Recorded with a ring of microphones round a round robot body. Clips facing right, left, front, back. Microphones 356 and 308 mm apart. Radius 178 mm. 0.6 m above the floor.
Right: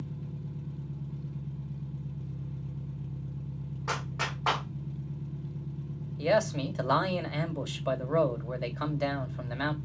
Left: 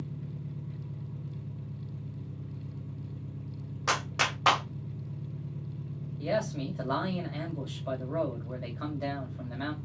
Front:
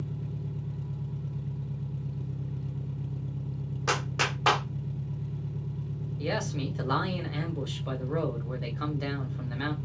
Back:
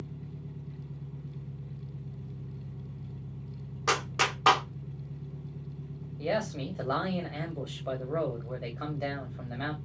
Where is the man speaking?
65° right, 2.5 m.